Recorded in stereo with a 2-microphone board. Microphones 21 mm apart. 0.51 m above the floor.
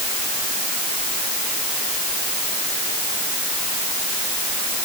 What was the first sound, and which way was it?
Only background noise.